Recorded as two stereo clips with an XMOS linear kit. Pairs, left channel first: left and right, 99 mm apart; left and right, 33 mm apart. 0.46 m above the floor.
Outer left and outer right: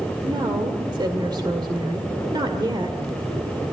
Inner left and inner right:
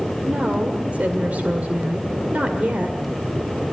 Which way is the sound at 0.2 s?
45° right (ahead or behind).